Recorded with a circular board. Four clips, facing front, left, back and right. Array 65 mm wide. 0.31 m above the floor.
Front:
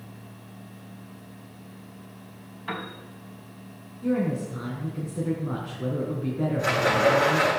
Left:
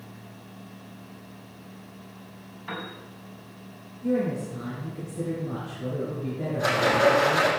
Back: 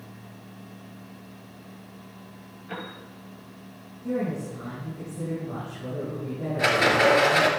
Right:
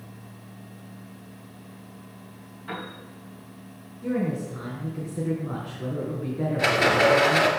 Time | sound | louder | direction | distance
2.7 | a piano | even, front 3 dB | 10° left | 5.5 m
4.0 | a woman speaking | left 1 dB, front 3 dB | 30° right | 3.5 m
6.6 | a rattle | right 1 dB, back 2 dB | 135° right | 3 m